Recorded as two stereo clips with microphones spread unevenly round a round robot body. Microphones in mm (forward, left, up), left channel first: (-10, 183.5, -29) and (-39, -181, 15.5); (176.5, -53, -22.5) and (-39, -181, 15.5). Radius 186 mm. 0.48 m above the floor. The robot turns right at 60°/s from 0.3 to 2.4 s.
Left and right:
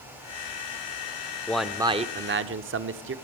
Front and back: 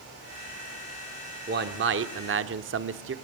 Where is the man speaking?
160° left, 1.2 m; by 3.1 s 145° right, 1.2 m.